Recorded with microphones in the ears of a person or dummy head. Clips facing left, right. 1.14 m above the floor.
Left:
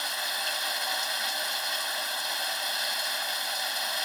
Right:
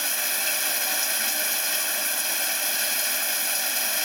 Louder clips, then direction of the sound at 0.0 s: Right 2 dB; 30° right (ahead or behind).